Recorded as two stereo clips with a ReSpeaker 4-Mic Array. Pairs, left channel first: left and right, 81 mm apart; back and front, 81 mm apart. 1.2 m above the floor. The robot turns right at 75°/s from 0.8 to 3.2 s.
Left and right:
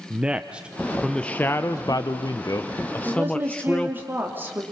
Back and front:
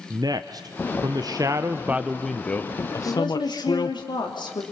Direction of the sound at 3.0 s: 165° right.